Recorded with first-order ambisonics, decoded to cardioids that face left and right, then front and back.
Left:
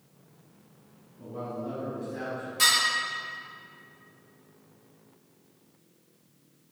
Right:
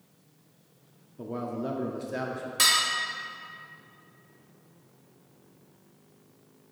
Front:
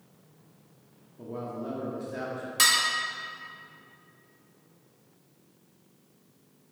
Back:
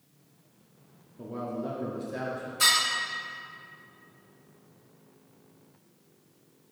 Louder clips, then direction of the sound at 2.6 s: Even, even; 25° right.